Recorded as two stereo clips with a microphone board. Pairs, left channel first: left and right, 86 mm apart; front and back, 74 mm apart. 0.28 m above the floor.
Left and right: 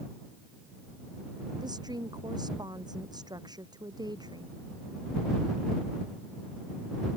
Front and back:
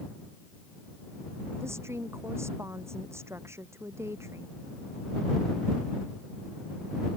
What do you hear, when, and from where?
1.6 s a woman speaking: 130° right